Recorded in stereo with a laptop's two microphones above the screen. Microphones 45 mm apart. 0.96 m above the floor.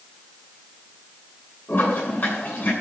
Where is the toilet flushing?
40° left (ahead or behind), 8 m.